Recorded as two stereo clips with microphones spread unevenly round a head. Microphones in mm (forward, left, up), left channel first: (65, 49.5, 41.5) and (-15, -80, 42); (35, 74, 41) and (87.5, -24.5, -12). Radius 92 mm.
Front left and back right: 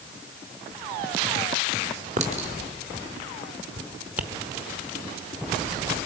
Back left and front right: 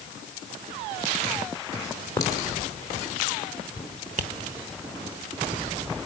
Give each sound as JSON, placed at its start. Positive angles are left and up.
{"t": 2.2, "sound": "a clink", "azimuth_deg": -175, "distance_m": 2.5}
{"t": 4.2, "sound": "tapping", "azimuth_deg": -45, "distance_m": 1.3}